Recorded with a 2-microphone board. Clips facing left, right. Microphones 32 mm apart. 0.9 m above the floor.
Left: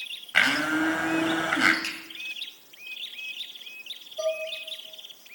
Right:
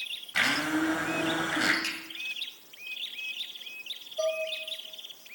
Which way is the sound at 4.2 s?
10° right (ahead or behind).